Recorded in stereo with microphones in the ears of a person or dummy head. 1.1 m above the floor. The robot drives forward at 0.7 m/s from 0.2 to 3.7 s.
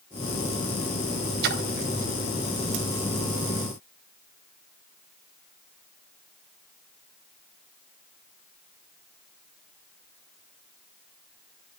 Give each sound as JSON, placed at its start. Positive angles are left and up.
{"t": 1.4, "sound": "a splash", "side_deg": -50, "distance_m": 0.8}